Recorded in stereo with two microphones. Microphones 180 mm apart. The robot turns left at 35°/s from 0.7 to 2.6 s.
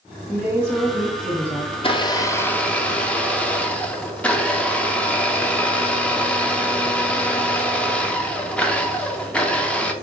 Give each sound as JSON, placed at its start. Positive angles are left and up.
{"t": 0.3, "sound": "a woman speaking", "azimuth_deg": 175, "distance_m": 1.0}
{"t": 1.7, "sound": "a blender", "azimuth_deg": 40, "distance_m": 0.5}